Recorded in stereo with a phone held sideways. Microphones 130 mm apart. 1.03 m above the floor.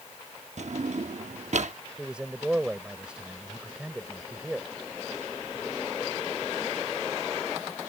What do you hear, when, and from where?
0.6 s a drawer: 65° right (ahead or behind)
2.0 s a man speaking: 10° right (ahead or behind)